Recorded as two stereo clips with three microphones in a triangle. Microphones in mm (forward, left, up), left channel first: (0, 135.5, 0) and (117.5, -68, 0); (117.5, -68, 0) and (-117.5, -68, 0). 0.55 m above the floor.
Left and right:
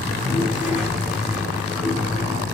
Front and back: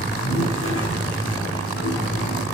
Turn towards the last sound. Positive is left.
turn(degrees=25)